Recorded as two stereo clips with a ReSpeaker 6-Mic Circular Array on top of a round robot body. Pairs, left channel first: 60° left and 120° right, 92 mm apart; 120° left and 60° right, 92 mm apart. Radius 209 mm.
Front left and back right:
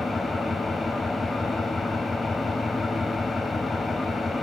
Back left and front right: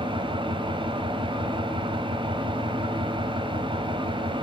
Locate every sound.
0.0 s an engine running: 30° right, 1.8 m